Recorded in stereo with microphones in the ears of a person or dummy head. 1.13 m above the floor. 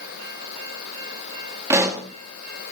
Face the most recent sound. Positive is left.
turn(degrees=-15)  # may be behind; listen again after turning